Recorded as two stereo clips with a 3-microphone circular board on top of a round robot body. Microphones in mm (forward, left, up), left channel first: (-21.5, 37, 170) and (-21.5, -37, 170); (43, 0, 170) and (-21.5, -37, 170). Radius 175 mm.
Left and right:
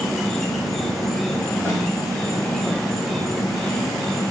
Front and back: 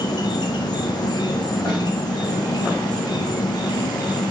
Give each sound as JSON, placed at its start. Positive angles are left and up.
{"t": 0.0, "sound": "an insect", "azimuth_deg": 5, "distance_m": 0.9}
{"t": 1.6, "sound": "a snare drum", "azimuth_deg": 25, "distance_m": 5.5}